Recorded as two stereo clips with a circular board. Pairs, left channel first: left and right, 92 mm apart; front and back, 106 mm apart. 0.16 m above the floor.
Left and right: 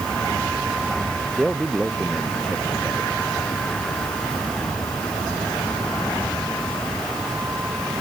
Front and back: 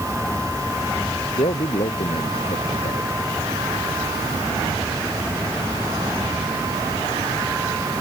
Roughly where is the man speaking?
Ahead.